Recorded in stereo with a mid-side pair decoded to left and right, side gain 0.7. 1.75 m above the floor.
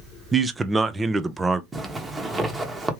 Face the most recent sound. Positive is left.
turn(degrees=-15)